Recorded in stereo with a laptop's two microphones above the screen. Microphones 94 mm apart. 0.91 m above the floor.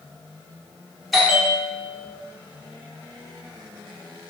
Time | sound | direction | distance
1.1 | a bell | centre (ahead or behind) | 0.8 m